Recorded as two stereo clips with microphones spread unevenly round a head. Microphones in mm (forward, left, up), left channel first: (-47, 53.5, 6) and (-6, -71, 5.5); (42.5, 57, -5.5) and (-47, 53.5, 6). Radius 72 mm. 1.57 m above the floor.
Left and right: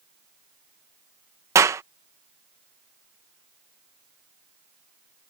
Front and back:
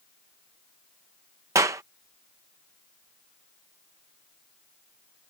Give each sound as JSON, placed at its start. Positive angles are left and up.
{"t": 1.6, "sound": "a clap", "azimuth_deg": -135}